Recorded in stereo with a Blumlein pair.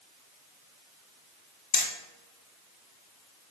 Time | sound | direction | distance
1.7 | hammering | 40° left | 2.5 m